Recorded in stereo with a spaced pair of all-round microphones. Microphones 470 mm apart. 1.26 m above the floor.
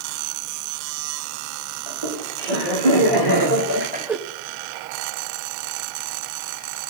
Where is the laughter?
60° right (ahead or behind), 2.5 m; by 4.2 s 5° left (ahead or behind), 0.6 m.